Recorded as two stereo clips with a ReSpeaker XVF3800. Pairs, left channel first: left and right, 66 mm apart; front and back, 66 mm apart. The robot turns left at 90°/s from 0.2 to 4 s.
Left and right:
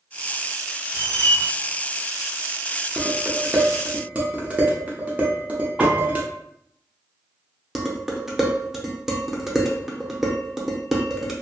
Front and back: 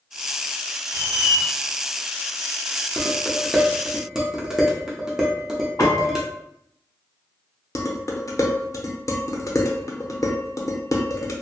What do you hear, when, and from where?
0.9 s a squeak: 140° left, 1.0 m; by 1.4 s 95° left, 1.0 m
3.0 s dishes clattering: 20° right, 0.7 m; by 6.2 s 115° right, 0.7 m
5.8 s a piano: 20° right, 1.3 m
7.8 s dishes clattering: 5° right, 0.6 m